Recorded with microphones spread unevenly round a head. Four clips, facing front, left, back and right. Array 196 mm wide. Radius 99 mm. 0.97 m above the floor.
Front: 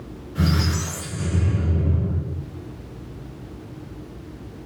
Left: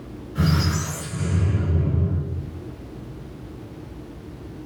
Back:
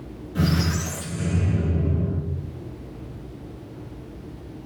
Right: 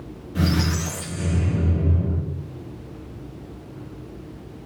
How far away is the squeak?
About 1.5 m.